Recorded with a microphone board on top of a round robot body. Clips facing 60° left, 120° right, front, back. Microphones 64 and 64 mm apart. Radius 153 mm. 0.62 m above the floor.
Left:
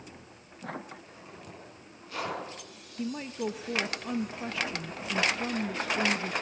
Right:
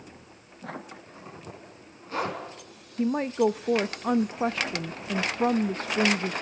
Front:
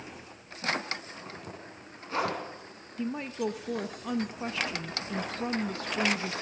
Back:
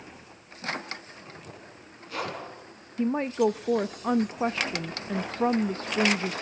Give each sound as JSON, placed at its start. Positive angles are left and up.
{"t": 1.0, "sound": "a zipper", "azimuth_deg": -60, "distance_m": 7.5}
{"t": 3.0, "sound": "a woman speaking", "azimuth_deg": -140, "distance_m": 0.7}